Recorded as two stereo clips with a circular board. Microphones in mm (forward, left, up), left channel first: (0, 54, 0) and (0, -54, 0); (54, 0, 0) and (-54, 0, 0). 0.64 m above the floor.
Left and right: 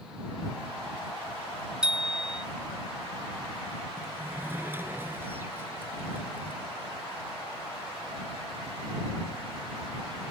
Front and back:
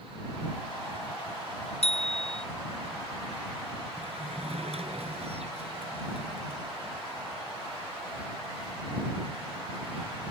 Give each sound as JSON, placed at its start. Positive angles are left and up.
{"t": 1.8, "sound": "a bicycle bell", "azimuth_deg": -5}
{"t": 4.0, "sound": "a sliding door", "azimuth_deg": -160}